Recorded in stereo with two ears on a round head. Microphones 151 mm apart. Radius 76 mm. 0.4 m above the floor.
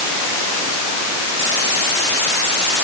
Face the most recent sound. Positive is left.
No sound to turn to.